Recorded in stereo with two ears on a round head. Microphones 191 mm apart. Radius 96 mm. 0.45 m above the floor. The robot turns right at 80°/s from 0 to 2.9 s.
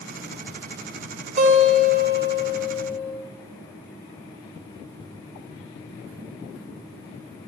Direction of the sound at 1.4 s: 140° right.